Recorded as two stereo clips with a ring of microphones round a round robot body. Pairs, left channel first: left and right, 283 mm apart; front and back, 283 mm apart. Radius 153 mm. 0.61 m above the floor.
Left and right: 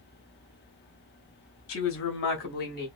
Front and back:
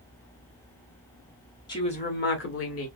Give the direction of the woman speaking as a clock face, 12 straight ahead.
10 o'clock.